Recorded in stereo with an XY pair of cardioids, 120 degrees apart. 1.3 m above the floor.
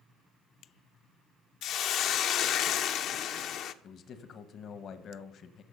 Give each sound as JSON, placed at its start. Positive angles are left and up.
{"t": 1.6, "sound": "a hiss", "azimuth_deg": 65, "distance_m": 0.8}
{"t": 3.8, "sound": "a man speaking", "azimuth_deg": 55, "distance_m": 1.1}